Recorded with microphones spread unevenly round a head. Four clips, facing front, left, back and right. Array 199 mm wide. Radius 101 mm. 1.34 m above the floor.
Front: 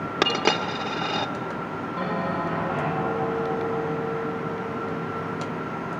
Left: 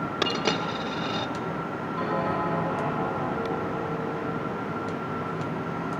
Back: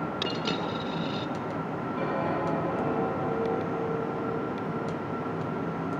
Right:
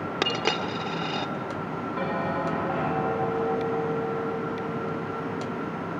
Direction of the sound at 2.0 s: 60° right.